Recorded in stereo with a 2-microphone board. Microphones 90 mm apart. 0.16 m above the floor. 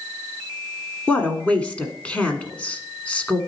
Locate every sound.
1.1 s a woman speaking: 15° left (ahead or behind), 1.2 m